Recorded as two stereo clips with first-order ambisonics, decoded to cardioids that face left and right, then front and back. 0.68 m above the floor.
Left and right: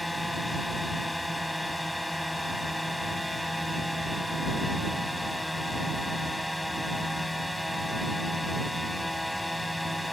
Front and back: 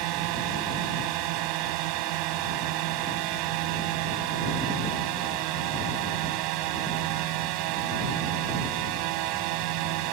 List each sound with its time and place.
0.0 s a drone: 175° left